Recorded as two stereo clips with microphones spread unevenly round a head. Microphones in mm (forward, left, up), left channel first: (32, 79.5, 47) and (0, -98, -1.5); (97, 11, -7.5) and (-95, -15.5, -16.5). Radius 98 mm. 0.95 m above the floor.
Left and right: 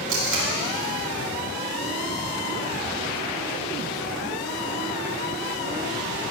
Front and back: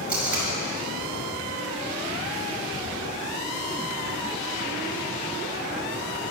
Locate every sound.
0.1 s tape being pulled: 90° right, 5.5 m